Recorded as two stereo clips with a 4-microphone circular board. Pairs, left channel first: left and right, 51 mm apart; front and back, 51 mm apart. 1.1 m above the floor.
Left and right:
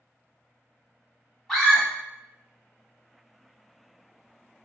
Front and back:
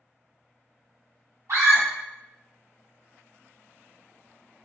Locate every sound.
1.5 s a scream: 170° left, 1.7 m